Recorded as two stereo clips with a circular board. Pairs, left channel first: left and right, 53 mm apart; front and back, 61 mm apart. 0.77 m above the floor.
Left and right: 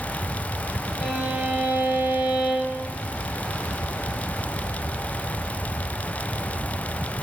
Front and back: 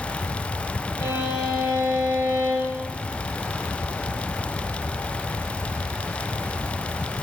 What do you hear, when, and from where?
1.0 s a violin: 5° right, 5 m